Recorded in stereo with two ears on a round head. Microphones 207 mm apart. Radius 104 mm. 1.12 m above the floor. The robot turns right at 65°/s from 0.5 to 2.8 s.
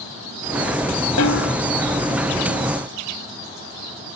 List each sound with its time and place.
1.2 s a snare drum: 85° left; by 1.6 s 60° left (ahead or behind)